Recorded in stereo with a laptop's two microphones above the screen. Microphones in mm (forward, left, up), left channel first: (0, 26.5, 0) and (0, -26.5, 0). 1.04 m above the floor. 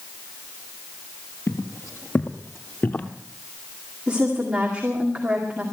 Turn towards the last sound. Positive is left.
turn(degrees=-20)  # may be behind; listen again after turning